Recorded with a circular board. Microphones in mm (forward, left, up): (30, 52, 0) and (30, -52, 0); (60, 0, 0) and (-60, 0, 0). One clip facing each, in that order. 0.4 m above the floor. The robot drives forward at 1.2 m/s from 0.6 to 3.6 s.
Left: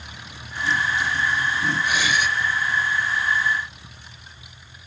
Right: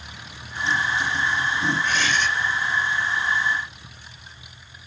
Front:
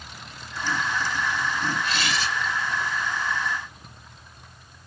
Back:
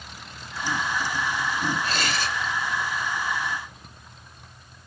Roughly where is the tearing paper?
Behind.